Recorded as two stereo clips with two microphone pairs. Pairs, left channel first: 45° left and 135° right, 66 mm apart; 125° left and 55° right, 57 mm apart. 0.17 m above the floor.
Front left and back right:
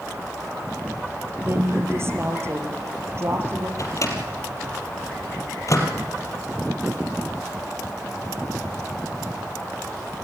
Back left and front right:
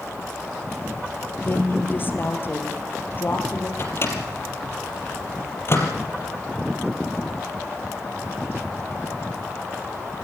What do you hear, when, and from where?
1.4 s a woman speaking: straight behind, 4 m
3.8 s a microwave: 85° left, 4 m